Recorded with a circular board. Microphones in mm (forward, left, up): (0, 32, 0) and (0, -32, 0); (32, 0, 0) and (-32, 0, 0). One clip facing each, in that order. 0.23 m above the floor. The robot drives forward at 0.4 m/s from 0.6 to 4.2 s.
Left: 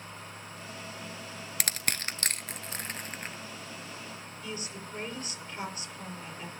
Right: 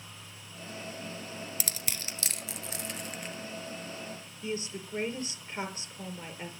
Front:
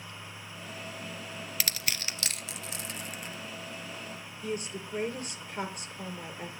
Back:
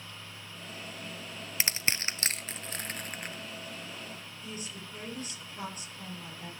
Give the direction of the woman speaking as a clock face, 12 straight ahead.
1 o'clock.